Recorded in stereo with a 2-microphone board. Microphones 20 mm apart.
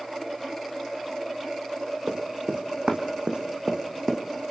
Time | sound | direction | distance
2.1 | running footsteps | 65° right (ahead or behind) | 3 m